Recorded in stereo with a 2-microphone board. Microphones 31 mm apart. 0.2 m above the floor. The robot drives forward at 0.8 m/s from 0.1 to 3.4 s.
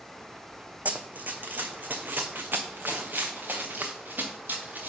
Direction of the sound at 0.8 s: 55° right (ahead or behind).